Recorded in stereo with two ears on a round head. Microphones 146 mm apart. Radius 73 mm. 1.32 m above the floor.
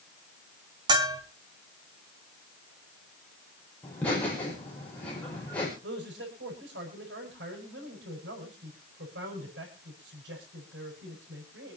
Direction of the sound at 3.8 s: 10° left (ahead or behind).